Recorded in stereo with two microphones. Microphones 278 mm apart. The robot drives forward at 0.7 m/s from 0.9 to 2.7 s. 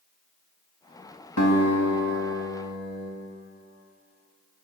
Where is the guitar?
70° left (ahead or behind), 1.2 m; by 3.1 s 60° left (ahead or behind), 1.4 m.